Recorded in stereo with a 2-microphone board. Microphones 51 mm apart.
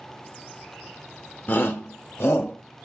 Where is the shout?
35° left (ahead or behind), 0.9 m; by 2.6 s 55° left (ahead or behind), 1.9 m.